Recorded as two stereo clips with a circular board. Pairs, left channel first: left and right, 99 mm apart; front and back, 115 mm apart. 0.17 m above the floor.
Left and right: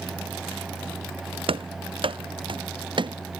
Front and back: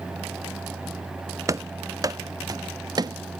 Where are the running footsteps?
120° right; by 3.2 s 125° right.